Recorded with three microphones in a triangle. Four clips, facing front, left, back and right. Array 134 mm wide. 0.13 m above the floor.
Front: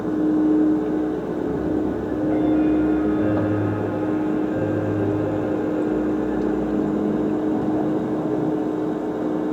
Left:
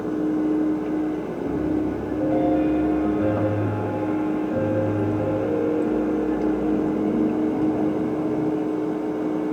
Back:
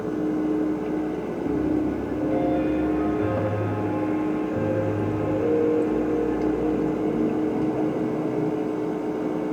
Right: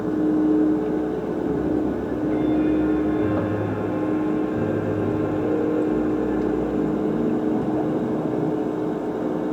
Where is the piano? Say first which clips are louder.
Even, back 1 dB; 65° left, 7.5 m.